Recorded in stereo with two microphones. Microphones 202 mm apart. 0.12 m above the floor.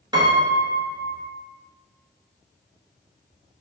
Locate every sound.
0.1 s a piano: 20° right (ahead or behind), 0.6 m